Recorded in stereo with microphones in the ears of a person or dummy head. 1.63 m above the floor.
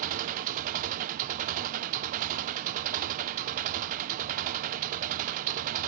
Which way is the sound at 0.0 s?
50° right (ahead or behind).